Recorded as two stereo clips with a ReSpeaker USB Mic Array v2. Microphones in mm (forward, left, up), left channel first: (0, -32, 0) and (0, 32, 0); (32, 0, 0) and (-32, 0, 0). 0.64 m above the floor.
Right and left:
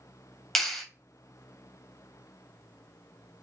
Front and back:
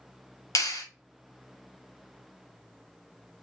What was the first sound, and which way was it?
A clap, 5° right.